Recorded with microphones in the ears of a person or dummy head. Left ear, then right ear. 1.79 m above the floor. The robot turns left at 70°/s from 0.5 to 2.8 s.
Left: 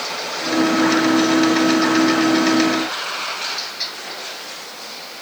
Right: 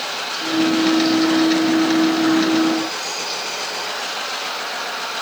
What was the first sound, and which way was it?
Only background noise.